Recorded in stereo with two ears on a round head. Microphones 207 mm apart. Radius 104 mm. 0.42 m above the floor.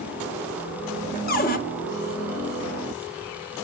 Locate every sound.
1.3 s a cupboard door: 40° left (ahead or behind), 1.0 m